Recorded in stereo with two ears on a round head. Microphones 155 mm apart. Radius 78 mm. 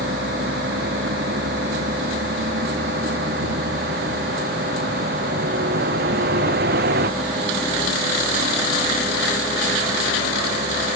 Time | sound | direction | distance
0.0 | a vehicle | 65° right (ahead or behind) | ?